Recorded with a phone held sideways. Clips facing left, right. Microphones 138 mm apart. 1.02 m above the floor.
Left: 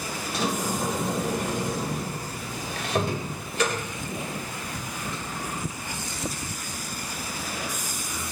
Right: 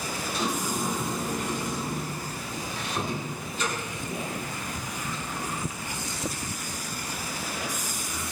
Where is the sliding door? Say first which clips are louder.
Left 3 dB; 80° left, 2.5 m.